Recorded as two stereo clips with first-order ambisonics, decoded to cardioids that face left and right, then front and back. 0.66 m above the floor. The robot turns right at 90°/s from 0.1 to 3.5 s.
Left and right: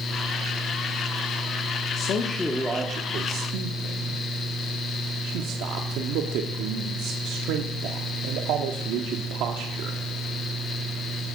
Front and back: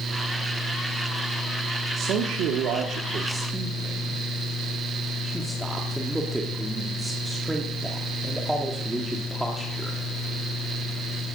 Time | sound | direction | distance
2.0 | a man speaking | 125° left | 1.2 m